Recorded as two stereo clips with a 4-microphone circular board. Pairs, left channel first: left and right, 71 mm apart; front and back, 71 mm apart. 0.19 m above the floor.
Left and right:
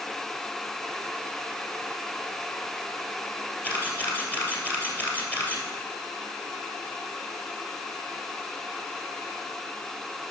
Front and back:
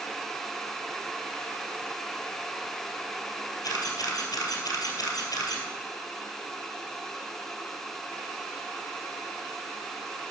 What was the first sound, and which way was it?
A camera shutter, 25° left.